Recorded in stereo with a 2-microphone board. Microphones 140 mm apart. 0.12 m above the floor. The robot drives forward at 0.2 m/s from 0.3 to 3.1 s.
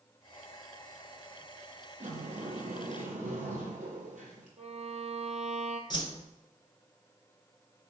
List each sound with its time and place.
2.0 s a sliding door: 65° right (ahead or behind), 2 m
4.6 s a violin: 50° right (ahead or behind), 1.1 m
5.9 s a whoosh: 35° left (ahead or behind), 1.0 m